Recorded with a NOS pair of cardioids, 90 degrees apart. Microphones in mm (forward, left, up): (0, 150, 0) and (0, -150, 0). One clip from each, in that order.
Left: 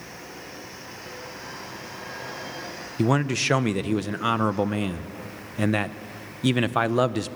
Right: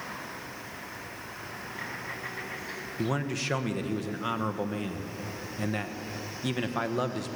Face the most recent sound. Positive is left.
turn(degrees=50)